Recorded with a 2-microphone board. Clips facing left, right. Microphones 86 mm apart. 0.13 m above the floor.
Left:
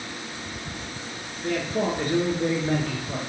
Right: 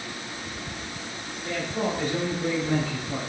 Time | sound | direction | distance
1.4 | a man speaking | 50° left (ahead or behind) | 1.6 m